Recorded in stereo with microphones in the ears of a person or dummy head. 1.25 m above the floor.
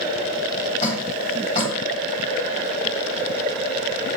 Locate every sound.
0.8 s dripping: 30° left (ahead or behind), 3.5 m